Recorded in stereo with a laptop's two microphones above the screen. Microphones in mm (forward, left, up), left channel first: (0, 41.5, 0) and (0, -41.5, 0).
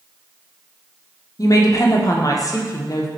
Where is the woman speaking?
45° left (ahead or behind), 0.7 m.